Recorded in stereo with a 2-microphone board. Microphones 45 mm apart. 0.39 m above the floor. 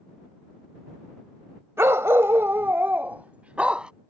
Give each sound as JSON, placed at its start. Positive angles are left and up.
{"t": 1.8, "sound": "a dog barking", "side_deg": -70}